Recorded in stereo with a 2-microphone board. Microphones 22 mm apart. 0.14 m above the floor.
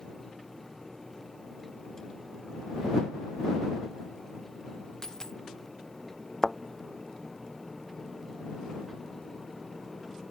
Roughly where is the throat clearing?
No throat clearing in this recording.